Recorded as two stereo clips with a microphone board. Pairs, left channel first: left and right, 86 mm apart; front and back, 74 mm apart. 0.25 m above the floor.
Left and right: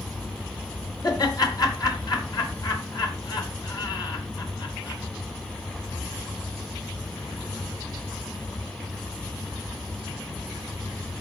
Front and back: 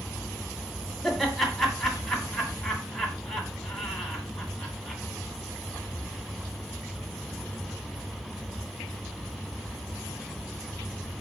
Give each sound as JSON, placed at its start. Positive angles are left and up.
{"t": 1.0, "sound": "laughter", "azimuth_deg": 85, "distance_m": 2.0}